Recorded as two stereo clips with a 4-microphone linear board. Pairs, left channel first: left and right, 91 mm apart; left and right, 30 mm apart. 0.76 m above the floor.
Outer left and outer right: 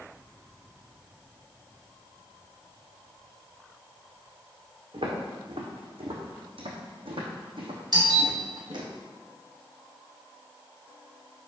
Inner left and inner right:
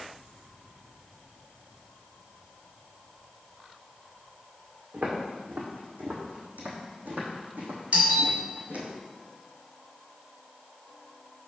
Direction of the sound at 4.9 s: 70° right (ahead or behind).